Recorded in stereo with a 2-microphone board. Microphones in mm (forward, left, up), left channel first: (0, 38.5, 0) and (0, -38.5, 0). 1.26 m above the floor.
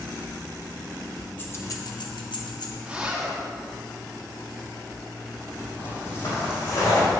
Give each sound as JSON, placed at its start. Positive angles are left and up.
{"t": 1.4, "sound": "keys jangling", "side_deg": 30, "distance_m": 0.9}
{"t": 2.8, "sound": "a zipper", "side_deg": -10, "distance_m": 2.5}
{"t": 5.8, "sound": "footsteps", "side_deg": 30, "distance_m": 2.5}